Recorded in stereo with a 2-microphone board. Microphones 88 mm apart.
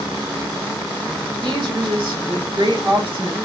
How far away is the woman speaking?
About 3.5 m.